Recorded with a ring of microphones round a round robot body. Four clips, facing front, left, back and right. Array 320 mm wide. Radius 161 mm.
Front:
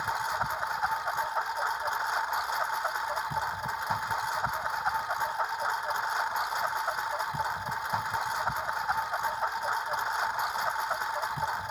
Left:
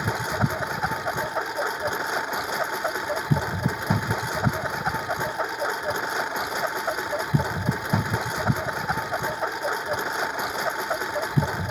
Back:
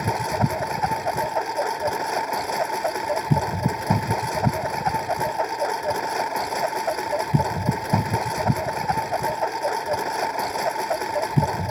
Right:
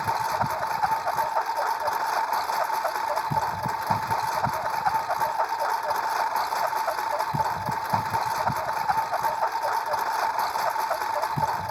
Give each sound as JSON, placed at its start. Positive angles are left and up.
{"t": 0.0, "sound": "a lawn mower", "azimuth_deg": 145}